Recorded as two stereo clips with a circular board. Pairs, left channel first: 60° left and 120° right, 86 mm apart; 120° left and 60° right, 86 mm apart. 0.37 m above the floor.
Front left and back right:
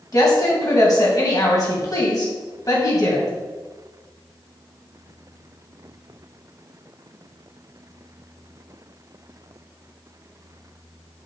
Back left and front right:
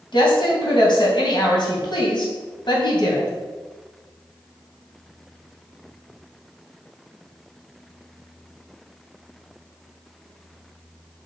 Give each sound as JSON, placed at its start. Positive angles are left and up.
{"t": 0.1, "sound": "a woman speaking", "azimuth_deg": 100, "distance_m": 3.0}